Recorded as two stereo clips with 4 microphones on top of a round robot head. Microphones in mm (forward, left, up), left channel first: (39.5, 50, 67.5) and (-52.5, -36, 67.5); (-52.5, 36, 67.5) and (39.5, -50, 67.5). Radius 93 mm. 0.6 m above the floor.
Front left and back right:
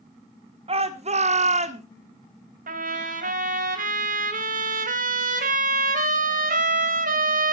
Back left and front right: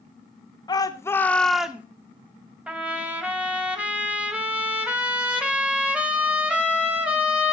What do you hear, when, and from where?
0.7 s a shout: 170° right, 2 m; by 1.9 s 120° right, 1.8 m
2.7 s a trumpet: 125° right, 2.5 m